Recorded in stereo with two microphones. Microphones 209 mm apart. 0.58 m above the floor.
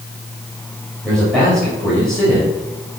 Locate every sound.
1.0 s a man speaking: 5° left (ahead or behind), 3.5 m